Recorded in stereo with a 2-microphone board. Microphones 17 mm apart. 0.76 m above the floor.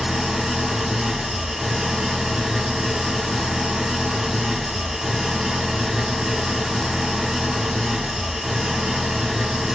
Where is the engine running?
35° right (ahead or behind), 0.8 m.